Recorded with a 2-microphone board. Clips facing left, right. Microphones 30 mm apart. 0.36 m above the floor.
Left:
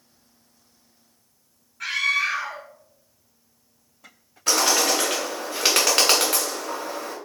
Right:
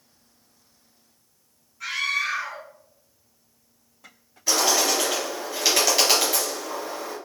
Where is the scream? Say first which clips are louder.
Left 3 dB; 60° left (ahead or behind), 2 m.